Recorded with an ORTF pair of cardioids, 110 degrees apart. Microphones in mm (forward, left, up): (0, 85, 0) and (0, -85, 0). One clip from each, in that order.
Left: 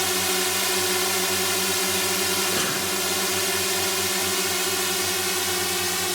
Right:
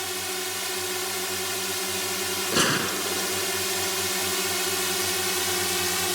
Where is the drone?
45° left; by 6.2 s 10° left.